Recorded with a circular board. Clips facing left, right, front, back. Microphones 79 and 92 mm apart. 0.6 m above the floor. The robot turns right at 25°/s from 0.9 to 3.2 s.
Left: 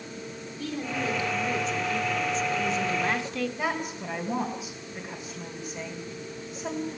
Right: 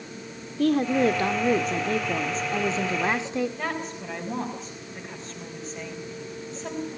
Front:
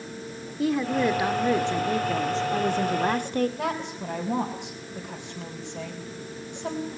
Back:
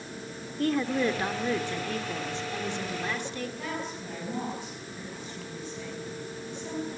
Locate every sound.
0.6 s a woman speaking: 85° right, 1.4 m; by 3.5 s 25° right, 1.4 m
3.6 s a woman speaking: 10° left, 3.5 m